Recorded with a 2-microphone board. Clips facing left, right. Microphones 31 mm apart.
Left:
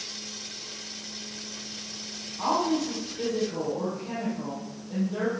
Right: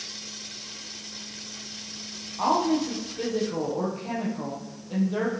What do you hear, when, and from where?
2.4 s a woman speaking: 25° right (ahead or behind), 4 m